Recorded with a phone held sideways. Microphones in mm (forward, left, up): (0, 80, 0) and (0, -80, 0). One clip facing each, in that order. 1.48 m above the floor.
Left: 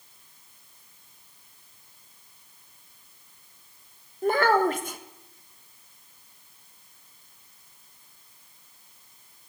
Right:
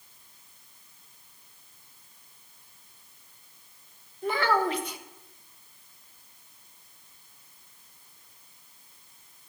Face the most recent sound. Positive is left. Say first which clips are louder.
# left 4 dB
turn(degrees=45)  # may be behind; listen again after turning